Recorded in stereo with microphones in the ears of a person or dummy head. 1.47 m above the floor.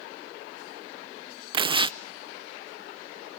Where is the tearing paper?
25° right (ahead or behind), 0.6 m.